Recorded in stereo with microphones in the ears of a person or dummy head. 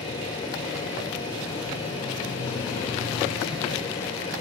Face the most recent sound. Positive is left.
turn(degrees=30)  # may be behind; listen again after turning